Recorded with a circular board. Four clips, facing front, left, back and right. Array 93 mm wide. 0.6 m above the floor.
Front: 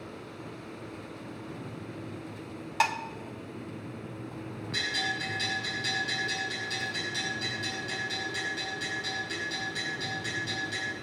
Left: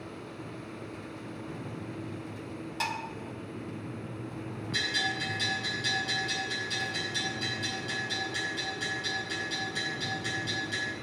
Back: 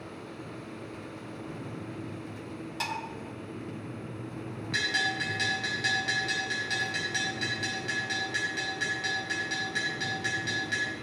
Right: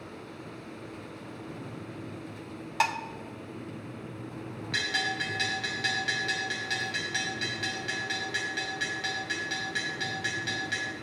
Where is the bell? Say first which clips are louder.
Right 2 dB, back 3 dB; 120° right, 4.5 m.